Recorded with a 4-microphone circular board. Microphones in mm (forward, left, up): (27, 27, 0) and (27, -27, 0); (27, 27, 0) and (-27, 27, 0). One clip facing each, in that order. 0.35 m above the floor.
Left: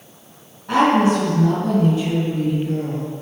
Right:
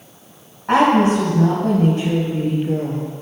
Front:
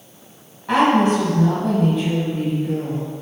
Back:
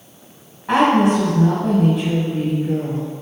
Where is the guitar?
No guitar in this recording.